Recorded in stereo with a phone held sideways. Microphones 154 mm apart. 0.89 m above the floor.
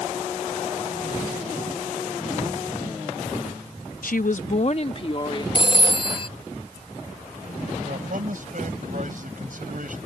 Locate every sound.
4.0 s a woman speaking: 70° left (ahead or behind); by 5.5 s 35° left (ahead or behind)
5.5 s a phone ringing: 35° left (ahead or behind)
7.8 s a man speaking: 65° right (ahead or behind)